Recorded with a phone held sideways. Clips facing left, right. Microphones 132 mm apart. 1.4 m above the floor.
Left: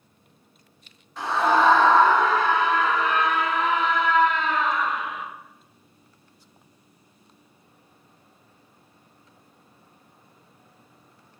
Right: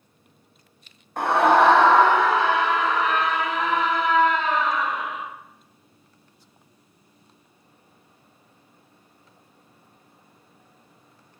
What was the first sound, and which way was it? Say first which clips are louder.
A scream: right 4 dB; 55° right (ahead or behind).